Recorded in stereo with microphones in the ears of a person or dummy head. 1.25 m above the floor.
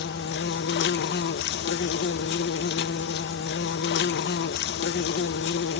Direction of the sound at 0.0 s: 55° left (ahead or behind).